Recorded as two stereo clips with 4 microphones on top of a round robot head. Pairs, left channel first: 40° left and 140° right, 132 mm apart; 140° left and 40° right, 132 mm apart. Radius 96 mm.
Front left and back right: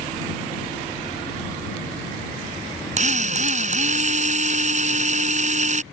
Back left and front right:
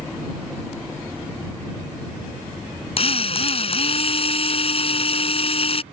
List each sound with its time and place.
3.0 s a drill: 175° right